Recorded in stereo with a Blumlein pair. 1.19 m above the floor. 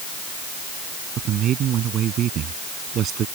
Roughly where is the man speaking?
Ahead right.